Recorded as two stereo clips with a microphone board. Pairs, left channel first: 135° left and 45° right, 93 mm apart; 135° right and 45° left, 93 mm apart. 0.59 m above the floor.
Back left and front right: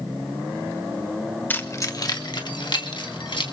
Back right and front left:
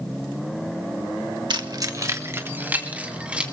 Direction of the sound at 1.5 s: 70° left.